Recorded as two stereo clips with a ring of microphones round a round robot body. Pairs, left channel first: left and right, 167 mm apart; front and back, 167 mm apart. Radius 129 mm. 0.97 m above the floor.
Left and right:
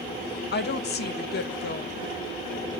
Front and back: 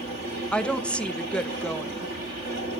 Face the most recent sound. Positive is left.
turn(degrees=85)